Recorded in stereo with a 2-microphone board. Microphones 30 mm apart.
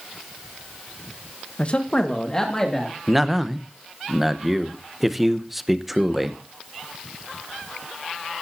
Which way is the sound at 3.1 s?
Centre (ahead or behind).